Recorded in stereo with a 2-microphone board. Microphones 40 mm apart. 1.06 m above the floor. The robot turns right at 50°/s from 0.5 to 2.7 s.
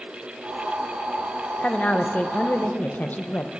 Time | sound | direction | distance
1.6 | a woman speaking | 40° left | 0.9 m